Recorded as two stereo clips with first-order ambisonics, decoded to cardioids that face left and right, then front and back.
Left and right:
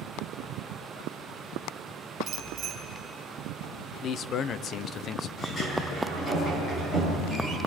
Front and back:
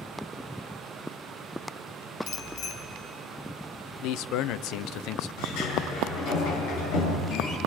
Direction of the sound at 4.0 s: 35° left.